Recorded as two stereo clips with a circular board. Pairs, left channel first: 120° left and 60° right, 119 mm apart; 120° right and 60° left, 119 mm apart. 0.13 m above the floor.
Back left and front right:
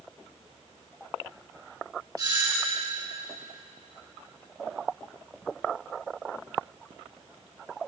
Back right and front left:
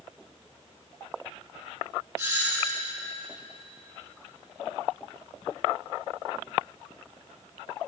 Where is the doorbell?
10° right, 6 m.